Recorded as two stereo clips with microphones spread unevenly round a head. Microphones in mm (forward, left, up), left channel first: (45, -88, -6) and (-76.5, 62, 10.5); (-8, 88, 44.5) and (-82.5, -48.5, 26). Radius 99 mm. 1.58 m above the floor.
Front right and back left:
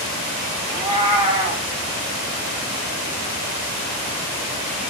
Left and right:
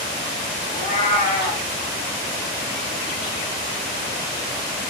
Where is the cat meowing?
65° left, 1.1 m.